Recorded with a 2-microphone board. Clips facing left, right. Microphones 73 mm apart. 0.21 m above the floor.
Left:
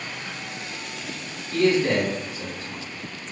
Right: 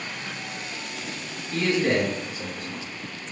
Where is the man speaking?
35° right (ahead or behind), 1.8 m.